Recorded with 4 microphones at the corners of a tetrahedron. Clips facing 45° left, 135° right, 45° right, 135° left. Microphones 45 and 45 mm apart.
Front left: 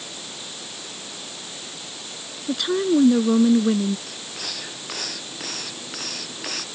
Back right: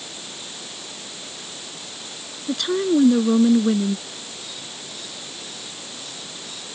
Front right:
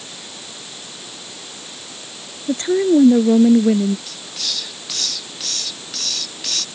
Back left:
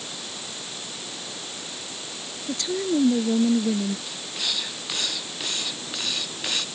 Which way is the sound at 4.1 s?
65° left.